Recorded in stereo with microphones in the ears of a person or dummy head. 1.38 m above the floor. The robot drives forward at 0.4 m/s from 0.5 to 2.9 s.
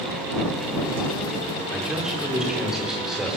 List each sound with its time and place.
1.7 s a man speaking: 5° right (ahead or behind), 4.5 m